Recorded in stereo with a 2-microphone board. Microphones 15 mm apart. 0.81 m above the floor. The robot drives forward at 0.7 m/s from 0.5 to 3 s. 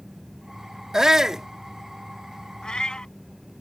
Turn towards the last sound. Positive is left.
turn(degrees=80)